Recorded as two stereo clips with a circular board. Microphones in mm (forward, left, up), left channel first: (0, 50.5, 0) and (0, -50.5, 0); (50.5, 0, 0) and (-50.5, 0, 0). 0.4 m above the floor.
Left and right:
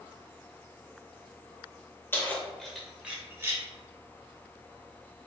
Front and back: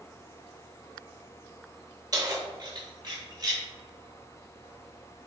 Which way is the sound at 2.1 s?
150° left.